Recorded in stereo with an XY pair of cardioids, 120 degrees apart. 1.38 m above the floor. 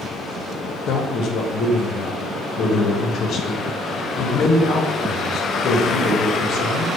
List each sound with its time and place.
0.9 s a man speaking: 60° left, 0.7 m